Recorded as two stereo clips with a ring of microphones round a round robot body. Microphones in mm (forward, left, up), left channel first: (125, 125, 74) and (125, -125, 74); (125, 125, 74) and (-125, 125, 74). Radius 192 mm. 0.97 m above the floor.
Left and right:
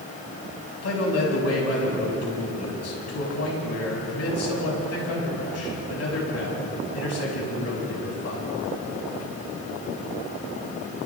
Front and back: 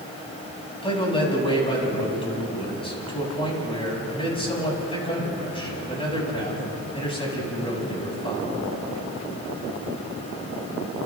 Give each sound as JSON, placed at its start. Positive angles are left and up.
{"t": 0.8, "sound": "a man speaking", "azimuth_deg": 70, "distance_m": 8.0}